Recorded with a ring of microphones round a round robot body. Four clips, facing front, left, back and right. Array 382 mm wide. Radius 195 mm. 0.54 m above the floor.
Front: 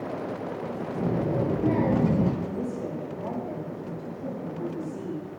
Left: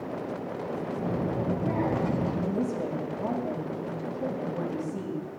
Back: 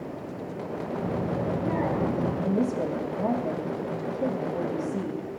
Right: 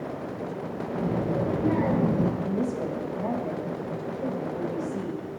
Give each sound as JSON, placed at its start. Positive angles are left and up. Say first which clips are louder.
{"t": 1.0, "sound": "a child speaking", "louder": "right 5 dB, front 4 dB", "azimuth_deg": -35, "distance_m": 9.5}
{"t": 2.4, "sound": "a woman speaking", "louder": "right 1 dB, back 5 dB", "azimuth_deg": 165, "distance_m": 2.5}